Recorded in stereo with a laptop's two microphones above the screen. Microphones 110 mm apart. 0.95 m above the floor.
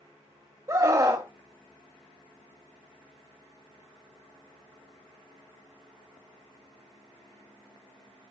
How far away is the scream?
About 2 m.